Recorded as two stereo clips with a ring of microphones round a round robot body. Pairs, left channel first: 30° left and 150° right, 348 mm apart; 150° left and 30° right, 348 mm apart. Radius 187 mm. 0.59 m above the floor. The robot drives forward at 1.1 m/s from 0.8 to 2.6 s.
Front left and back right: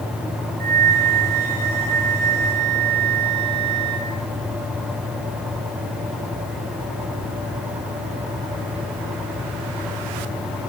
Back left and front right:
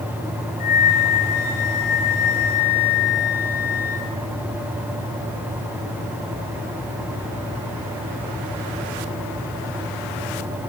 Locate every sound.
0.6 s a flute: straight behind, 2.5 m